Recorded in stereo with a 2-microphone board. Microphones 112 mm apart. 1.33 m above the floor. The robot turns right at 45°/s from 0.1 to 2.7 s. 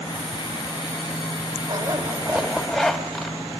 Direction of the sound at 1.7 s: 45° right.